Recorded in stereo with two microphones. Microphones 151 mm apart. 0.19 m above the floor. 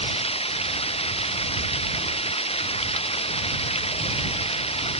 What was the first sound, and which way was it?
Running water, 40° left (ahead or behind).